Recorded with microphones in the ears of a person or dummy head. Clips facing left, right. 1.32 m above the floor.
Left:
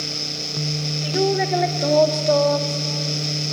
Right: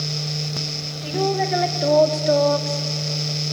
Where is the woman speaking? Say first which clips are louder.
Left 1 dB; 10° left (ahead or behind), 3 m; by 2.8 s 20° right (ahead or behind), 2.0 m.